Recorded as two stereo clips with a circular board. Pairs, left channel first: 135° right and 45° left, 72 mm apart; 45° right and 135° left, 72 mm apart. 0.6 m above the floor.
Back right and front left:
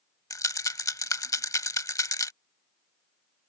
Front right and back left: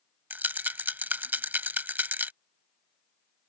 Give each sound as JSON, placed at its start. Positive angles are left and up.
{"t": 0.3, "sound": "a rattle", "azimuth_deg": -165}